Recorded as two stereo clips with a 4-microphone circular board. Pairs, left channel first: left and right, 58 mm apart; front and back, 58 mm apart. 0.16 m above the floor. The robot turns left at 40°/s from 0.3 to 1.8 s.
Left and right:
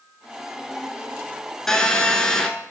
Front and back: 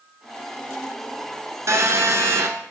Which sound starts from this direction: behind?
A phone buzzing, at 1.7 s.